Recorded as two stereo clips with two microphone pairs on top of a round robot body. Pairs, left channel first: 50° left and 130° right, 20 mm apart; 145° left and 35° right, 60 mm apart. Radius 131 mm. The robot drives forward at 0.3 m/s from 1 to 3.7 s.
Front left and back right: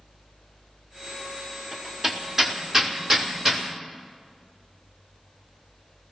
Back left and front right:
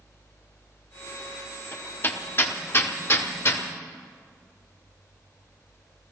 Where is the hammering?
165° left, 1.3 m; by 3.6 s 170° left, 1.8 m.